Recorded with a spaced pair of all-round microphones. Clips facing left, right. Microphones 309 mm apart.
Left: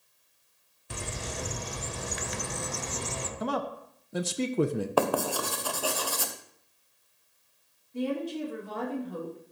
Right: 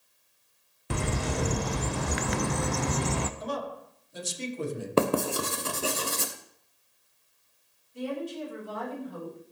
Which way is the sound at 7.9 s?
70° left (ahead or behind).